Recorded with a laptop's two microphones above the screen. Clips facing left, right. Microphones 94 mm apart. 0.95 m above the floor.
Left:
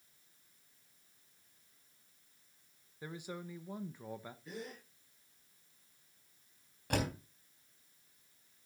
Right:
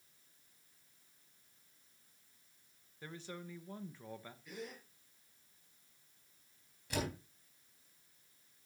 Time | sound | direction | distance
3.0 | a man speaking | 15° left (ahead or behind) | 0.8 m
4.5 | a gasp | 30° left (ahead or behind) | 6 m
6.9 | a door slam | 55° left (ahead or behind) | 3.5 m